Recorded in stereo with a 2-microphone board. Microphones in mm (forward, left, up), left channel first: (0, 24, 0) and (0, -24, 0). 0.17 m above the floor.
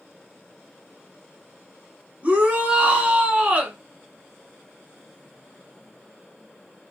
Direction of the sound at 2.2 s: 35° right (ahead or behind).